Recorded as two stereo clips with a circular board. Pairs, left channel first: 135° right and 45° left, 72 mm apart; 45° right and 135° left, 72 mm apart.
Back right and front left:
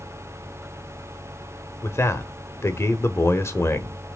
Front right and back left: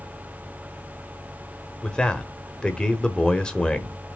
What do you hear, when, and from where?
1.8 s a man speaking: 115° right, 1.0 m